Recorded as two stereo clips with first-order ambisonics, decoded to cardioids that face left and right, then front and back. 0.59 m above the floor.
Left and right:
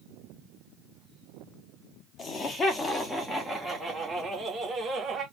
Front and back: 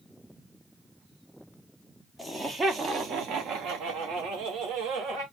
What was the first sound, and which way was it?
Laughter, 85° left.